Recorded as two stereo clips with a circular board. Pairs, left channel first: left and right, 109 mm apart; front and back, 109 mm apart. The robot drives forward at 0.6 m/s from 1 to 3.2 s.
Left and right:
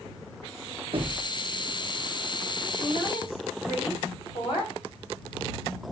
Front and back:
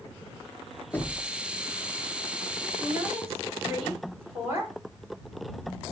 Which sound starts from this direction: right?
Knocking, at 0.9 s.